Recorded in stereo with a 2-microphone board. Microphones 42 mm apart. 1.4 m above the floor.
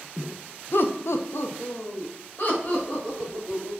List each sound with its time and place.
0.7 s laughter: 50° left (ahead or behind), 0.5 m; by 3.7 s 30° left (ahead or behind), 3 m